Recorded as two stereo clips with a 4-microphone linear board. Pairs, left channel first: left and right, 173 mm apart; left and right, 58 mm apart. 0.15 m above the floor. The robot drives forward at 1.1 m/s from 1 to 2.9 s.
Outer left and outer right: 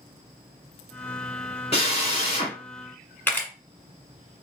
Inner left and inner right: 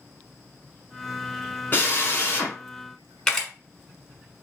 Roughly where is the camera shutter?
Centre.